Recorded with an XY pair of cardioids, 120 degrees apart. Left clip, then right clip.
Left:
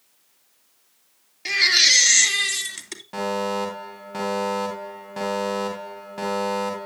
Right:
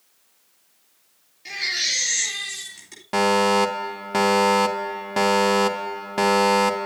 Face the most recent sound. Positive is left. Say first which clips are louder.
# right 7 dB
turn(degrees=-55)